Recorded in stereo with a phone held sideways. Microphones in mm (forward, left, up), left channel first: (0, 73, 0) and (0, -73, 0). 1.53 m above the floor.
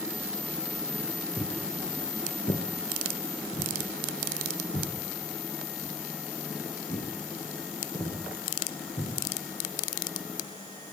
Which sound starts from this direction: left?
Footsteps, at 1.4 s.